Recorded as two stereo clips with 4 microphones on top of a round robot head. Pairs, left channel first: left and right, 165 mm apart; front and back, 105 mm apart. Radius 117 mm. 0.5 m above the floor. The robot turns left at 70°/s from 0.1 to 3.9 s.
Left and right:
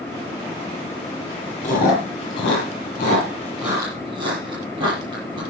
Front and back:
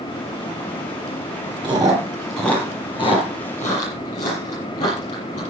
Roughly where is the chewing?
Behind left.